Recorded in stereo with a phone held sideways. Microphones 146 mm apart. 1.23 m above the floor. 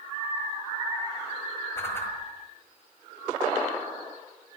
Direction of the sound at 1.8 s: 15° left (ahead or behind).